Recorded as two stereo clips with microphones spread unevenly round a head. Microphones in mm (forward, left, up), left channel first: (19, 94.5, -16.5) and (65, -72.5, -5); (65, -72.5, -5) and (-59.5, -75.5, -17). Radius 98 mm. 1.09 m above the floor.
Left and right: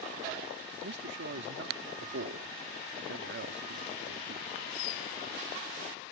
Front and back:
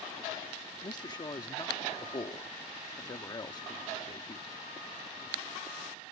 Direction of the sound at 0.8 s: 55° right.